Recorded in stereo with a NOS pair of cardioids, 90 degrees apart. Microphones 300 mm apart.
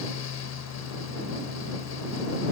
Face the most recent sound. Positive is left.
turn(degrees=55)